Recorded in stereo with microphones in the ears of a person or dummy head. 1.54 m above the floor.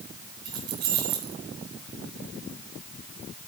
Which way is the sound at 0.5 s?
65° right (ahead or behind).